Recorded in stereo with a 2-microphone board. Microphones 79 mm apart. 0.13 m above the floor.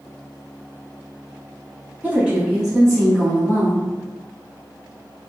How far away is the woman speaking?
About 1.2 m.